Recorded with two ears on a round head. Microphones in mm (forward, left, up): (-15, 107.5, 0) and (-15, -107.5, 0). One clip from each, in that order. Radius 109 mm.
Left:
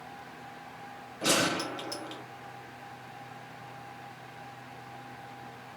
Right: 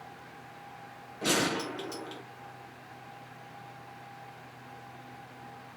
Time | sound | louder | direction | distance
1.2 | a gunshot | left 2 dB | 15° left (ahead or behind) | 1.5 m